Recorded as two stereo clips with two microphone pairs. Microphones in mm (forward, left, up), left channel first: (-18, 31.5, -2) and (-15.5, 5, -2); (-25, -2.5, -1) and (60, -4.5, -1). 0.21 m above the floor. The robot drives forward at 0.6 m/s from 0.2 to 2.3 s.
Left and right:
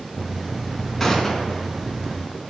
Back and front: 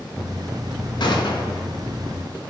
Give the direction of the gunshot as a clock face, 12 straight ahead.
6 o'clock.